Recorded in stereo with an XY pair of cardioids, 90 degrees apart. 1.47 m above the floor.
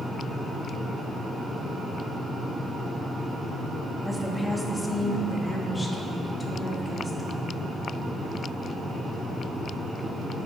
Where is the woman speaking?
5° right, 2.5 m; by 7.7 s 25° left, 3.5 m.